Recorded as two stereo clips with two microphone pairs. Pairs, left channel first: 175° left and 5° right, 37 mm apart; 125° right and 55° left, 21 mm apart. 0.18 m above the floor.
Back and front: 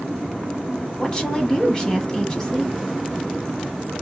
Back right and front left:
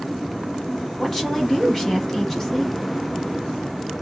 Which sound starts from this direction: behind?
A woman speaking, at 1.0 s.